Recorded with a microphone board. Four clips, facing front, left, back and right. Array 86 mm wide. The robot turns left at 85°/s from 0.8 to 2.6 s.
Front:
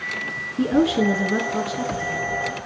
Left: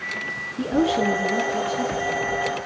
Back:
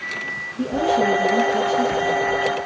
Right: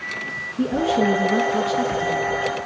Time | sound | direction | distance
0.6 | a woman speaking | 15° left | 2 m